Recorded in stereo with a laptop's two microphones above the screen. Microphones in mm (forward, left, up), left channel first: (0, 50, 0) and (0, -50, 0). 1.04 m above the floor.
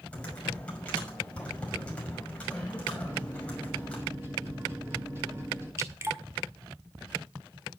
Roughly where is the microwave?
Right.